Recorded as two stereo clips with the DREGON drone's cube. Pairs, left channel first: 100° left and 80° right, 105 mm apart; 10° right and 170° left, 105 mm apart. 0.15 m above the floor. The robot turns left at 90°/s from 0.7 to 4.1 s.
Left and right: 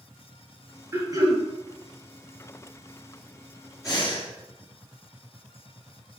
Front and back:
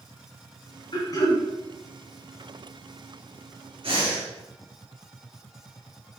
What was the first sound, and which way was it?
Throat clearing, 25° right.